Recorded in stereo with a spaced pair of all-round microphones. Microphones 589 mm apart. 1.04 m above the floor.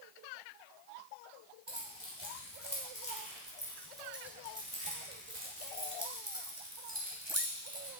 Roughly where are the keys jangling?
Left.